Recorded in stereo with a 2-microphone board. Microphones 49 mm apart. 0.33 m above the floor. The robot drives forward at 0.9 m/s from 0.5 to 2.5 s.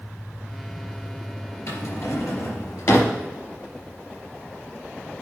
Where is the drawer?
70° left (ahead or behind), 3.5 m; by 3.2 s 80° left, 3 m.